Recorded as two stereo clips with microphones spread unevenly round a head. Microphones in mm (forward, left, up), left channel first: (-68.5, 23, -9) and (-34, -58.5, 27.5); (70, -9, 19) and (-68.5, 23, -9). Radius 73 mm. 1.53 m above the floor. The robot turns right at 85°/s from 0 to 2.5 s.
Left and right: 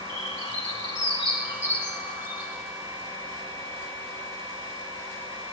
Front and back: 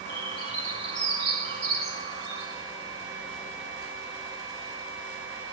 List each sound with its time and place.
0.1 s a bird: 50° left, 5.5 m; by 2.5 s 110° right, 5.5 m